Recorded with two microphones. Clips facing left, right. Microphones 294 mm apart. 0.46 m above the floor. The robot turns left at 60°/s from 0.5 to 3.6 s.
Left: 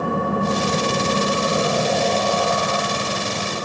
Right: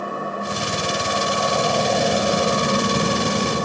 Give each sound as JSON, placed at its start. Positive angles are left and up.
{"t": 0.0, "sound": "an engine running", "azimuth_deg": 90, "distance_m": 1.7}